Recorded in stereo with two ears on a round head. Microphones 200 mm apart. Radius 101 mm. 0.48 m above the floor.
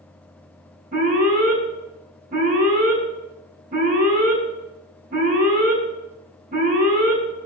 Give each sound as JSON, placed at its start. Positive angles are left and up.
{"t": 0.9, "sound": "an alarm", "side_deg": -40, "distance_m": 7.0}